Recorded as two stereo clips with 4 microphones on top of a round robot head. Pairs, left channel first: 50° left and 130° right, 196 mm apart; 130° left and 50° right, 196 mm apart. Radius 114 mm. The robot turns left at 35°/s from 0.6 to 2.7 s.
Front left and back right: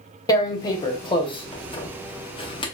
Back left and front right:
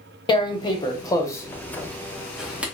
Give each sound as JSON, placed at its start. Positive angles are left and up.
{"t": 0.3, "sound": "tearing paper", "azimuth_deg": 95, "distance_m": 0.6}